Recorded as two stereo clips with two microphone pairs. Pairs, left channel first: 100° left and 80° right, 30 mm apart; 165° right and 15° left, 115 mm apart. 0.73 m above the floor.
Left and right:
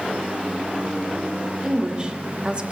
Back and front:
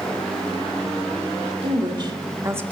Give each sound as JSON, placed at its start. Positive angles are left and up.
{"t": 1.6, "sound": "a woman speaking", "azimuth_deg": -20, "distance_m": 2.0}